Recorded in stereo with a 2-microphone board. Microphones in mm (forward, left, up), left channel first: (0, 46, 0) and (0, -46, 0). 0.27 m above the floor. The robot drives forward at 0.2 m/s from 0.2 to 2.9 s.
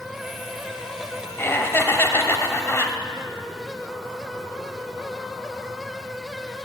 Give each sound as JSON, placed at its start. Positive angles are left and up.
{"t": 1.4, "sound": "laughter", "side_deg": 25, "distance_m": 0.9}